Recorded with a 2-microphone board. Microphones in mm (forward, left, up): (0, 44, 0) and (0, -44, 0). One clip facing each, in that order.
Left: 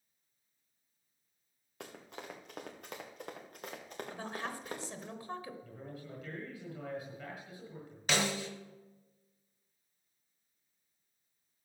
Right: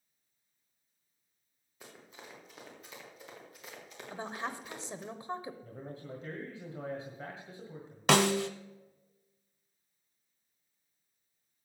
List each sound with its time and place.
1.8 s running footsteps: 70° left (ahead or behind), 3 m; by 5.1 s 40° left (ahead or behind), 3 m
4.1 s a woman speaking: 20° right (ahead or behind), 0.9 m
5.6 s a man speaking: 30° right (ahead or behind), 1.7 m
8.1 s a snare drum: 85° right, 0.6 m